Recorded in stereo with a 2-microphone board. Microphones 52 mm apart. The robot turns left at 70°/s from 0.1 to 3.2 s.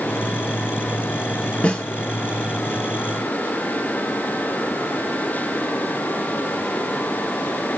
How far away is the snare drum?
About 1.6 m.